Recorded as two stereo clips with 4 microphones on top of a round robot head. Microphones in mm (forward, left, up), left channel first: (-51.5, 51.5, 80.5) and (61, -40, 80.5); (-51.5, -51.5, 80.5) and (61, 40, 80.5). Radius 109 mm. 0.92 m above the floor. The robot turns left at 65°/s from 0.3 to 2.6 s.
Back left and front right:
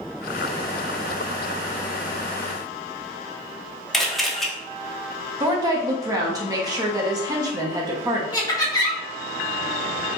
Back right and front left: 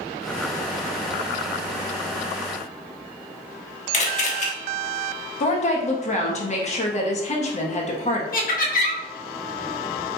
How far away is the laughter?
About 1.4 m.